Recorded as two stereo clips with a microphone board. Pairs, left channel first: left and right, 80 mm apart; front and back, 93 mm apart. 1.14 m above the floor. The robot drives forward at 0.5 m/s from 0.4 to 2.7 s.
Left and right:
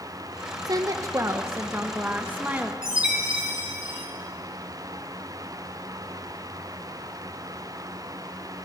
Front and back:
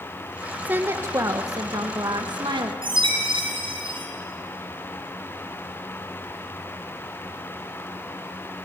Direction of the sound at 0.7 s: 110° right.